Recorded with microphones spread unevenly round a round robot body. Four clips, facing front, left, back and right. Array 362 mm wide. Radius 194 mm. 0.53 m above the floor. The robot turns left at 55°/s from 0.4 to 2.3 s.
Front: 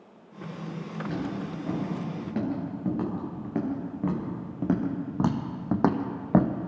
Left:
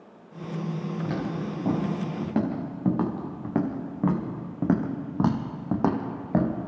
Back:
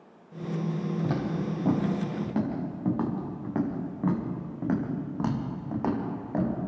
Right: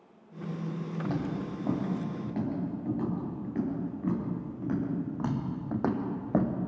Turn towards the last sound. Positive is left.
turn(degrees=20)